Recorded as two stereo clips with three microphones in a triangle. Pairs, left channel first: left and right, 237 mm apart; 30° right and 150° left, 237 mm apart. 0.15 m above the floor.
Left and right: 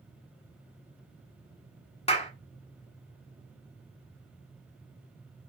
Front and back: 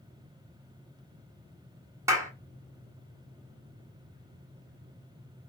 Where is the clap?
90° left, 1.1 m.